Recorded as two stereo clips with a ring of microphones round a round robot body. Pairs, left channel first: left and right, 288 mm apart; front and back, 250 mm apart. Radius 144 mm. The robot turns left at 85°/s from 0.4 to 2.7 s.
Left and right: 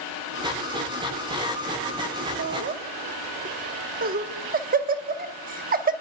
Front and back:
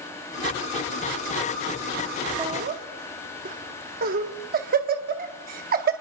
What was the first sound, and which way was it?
Laughter, 110° right.